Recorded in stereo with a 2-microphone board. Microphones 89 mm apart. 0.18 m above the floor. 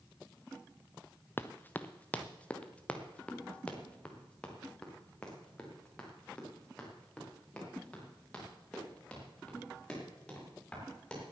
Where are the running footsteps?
25° left (ahead or behind), 0.7 m; by 11.2 s 10° left (ahead or behind), 8.5 m.